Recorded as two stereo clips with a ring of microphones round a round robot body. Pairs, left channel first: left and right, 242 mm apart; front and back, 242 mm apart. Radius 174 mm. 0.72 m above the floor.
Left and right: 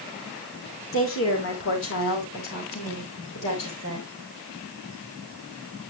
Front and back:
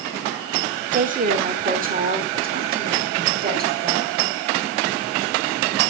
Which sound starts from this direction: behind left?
A woman speaking, at 0.9 s.